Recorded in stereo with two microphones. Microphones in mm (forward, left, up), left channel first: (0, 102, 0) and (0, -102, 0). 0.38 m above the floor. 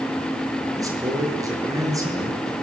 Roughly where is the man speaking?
Centre.